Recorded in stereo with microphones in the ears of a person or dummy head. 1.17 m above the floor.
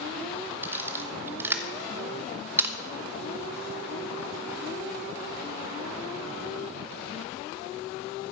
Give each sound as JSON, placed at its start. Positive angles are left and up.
{"t": 0.6, "sound": "a camera shutter", "side_deg": -10, "distance_m": 1.0}